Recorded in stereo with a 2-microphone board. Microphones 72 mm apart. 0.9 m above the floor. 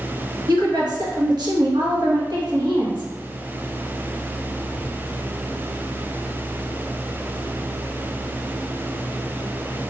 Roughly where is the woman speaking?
Right.